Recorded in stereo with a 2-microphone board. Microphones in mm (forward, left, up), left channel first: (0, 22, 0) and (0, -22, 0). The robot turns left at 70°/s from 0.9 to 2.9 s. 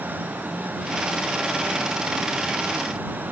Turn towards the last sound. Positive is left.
No sound to turn to.